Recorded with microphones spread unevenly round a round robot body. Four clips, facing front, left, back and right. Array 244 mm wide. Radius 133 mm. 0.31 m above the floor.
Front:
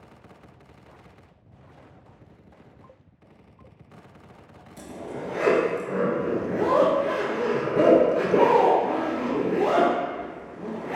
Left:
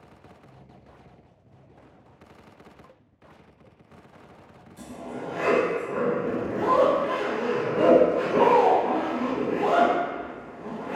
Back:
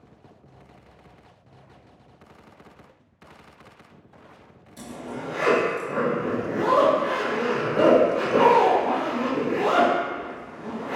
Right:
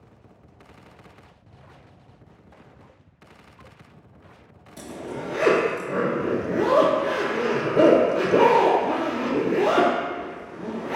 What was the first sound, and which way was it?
A zipper, 70° right.